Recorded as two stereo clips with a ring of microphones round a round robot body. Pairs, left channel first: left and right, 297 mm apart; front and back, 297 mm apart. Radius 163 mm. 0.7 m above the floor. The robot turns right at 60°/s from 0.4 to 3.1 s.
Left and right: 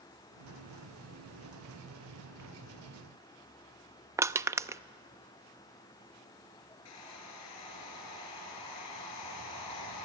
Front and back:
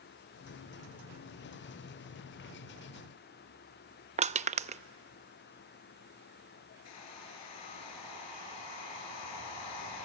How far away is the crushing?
About 0.6 m.